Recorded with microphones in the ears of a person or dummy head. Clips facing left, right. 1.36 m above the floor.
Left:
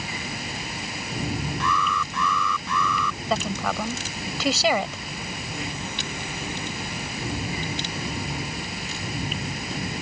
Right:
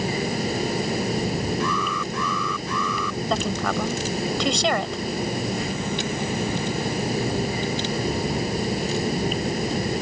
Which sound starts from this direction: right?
A fan, at 0.0 s.